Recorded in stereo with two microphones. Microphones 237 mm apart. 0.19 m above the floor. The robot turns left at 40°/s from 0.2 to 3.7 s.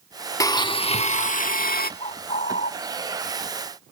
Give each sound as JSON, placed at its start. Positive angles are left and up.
{"t": 0.4, "sound": "a blender", "azimuth_deg": 160, "distance_m": 0.5}
{"t": 2.0, "sound": "a bird", "side_deg": 25, "distance_m": 0.8}